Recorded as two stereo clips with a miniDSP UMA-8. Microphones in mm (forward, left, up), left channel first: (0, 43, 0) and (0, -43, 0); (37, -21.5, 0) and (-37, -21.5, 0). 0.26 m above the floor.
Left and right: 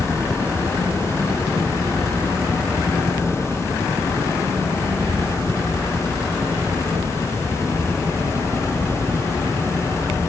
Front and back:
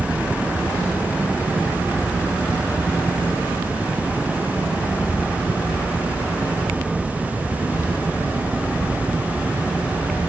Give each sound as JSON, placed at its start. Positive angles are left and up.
{"t": 0.0, "sound": "a helicopter", "azimuth_deg": -105}